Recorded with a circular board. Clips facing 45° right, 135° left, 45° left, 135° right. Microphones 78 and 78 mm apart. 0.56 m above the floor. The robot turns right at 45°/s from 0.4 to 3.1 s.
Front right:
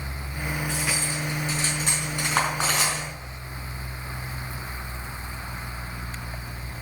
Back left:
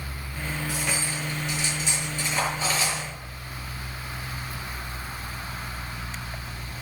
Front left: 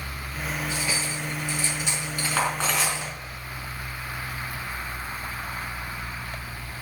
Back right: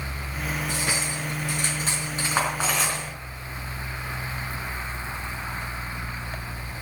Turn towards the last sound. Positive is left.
turn(degrees=-30)